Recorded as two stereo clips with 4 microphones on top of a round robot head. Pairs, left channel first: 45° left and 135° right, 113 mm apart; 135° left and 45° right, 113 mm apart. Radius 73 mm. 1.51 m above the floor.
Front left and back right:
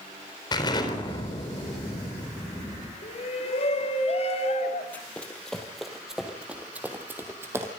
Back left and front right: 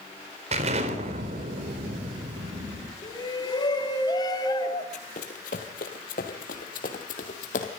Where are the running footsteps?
120° left, 2.5 m; by 7.7 s 155° left, 3 m.